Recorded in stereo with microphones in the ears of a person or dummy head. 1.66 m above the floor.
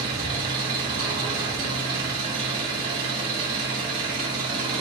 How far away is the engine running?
About 1.0 m.